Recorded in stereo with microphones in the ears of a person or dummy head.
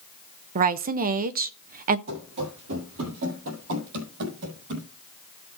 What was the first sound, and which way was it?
A woman speaking, 35° right (ahead or behind).